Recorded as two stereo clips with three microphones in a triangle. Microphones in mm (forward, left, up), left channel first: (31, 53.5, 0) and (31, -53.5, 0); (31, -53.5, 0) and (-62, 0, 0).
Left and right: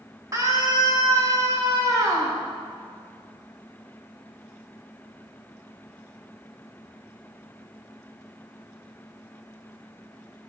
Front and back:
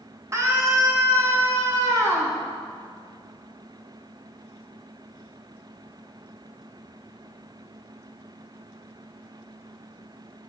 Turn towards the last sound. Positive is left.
turn(degrees=-150)